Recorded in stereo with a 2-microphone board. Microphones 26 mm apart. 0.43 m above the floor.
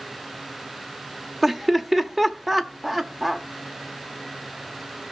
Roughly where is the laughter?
Centre.